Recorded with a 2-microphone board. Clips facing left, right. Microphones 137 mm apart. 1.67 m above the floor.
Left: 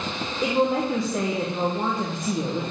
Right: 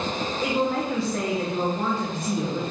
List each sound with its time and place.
0.4 s a woman speaking: 20° left (ahead or behind), 1.4 m